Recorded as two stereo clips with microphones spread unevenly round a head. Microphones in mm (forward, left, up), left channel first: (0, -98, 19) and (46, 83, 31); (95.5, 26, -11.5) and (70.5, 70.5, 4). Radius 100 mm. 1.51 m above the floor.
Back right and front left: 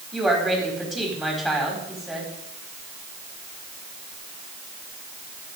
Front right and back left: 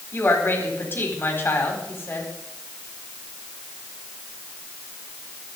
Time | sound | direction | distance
0.1 | a woman speaking | 15° right | 4.5 m